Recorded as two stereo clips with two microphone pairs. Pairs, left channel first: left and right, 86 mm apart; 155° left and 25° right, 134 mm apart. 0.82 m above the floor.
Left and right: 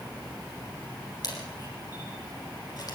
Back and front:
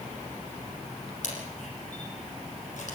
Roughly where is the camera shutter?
Behind left.